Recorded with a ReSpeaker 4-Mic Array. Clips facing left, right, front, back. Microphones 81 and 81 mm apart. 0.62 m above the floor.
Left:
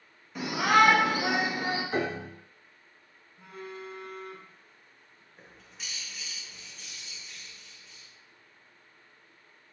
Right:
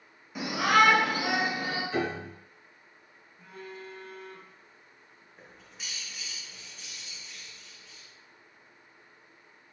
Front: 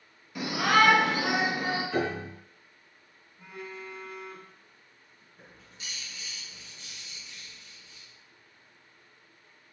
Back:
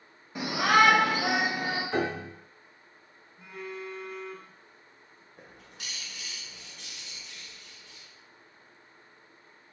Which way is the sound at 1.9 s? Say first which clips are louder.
Even, even; 140° left.